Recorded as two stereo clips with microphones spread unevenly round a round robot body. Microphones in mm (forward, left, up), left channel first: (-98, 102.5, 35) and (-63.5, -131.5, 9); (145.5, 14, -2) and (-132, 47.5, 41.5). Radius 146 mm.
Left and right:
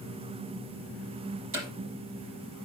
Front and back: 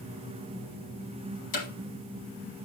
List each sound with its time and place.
1.5 s hammering: 30° right, 4.5 m